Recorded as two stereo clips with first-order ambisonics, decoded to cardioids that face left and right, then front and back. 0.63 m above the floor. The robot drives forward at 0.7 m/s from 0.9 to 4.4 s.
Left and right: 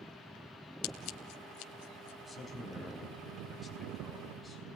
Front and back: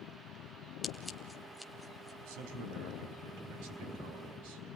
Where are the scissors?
80° left, 2 m; by 2.1 s 105° left, 2 m.